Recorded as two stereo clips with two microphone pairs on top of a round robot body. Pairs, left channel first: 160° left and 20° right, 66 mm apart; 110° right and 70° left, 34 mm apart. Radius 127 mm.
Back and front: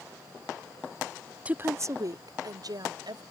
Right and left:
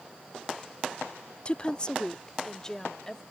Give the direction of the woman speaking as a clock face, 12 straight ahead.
2 o'clock.